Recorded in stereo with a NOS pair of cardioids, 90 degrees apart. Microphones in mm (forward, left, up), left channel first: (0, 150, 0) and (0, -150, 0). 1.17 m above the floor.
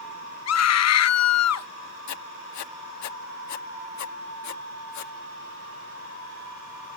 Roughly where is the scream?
Ahead left.